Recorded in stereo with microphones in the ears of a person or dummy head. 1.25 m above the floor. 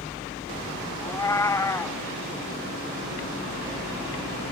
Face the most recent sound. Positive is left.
turn(degrees=15)  # may be behind; listen again after turning